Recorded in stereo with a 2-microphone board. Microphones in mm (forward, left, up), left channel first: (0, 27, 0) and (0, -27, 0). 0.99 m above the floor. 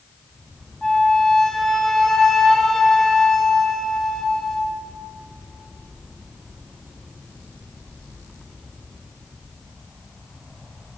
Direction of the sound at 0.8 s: 5° left (ahead or behind).